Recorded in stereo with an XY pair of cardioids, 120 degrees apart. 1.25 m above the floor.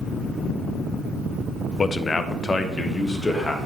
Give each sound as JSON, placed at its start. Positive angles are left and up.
{"t": 1.8, "sound": "a man speaking", "azimuth_deg": 30, "distance_m": 0.5}